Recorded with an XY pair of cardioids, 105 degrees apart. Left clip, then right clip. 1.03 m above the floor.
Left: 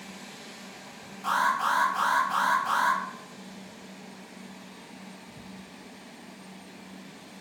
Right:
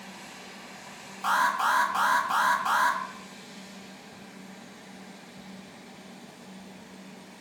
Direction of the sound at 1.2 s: 60° right.